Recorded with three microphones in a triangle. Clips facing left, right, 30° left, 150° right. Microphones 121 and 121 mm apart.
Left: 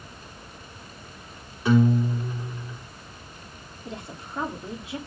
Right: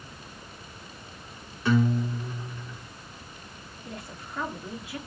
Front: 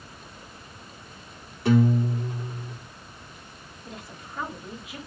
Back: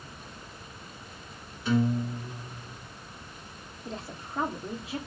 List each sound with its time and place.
1.6 s a guitar: 15° left, 3.5 m
3.9 s a woman speaking: 155° left, 2.5 m